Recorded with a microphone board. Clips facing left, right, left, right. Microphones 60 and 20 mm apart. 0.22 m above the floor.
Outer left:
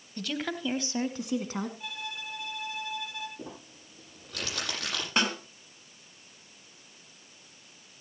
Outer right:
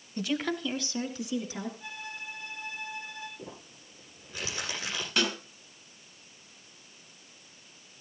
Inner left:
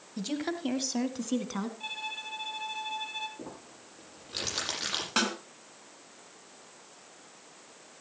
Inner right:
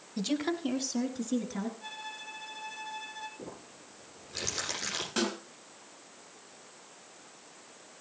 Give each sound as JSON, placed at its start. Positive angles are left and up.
{"t": 0.2, "sound": "a woman speaking", "side_deg": -15, "distance_m": 1.1}
{"t": 1.8, "sound": "a violin", "side_deg": 65, "distance_m": 2.5}
{"t": 3.4, "sound": "crumpling", "side_deg": 80, "distance_m": 9.5}
{"t": 5.2, "sound": "a snare drum", "side_deg": 35, "distance_m": 3.0}